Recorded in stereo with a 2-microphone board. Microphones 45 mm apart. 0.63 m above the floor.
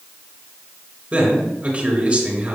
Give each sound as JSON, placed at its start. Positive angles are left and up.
{"t": 1.1, "sound": "a man speaking", "side_deg": -35, "distance_m": 2.5}